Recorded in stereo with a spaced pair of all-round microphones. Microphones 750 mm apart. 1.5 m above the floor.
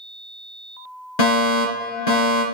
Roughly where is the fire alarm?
Left.